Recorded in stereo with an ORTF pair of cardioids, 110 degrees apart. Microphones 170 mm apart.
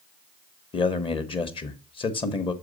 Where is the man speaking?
30° left, 1.0 m.